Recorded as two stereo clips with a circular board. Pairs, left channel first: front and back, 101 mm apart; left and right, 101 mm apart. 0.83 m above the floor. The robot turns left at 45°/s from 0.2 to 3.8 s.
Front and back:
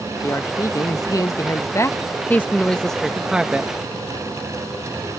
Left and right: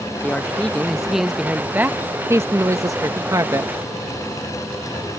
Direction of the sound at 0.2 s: 35° left.